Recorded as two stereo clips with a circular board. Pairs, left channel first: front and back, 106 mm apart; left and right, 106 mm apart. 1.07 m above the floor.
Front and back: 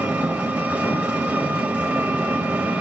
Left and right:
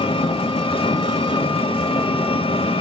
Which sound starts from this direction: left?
An engine running, at 0.0 s.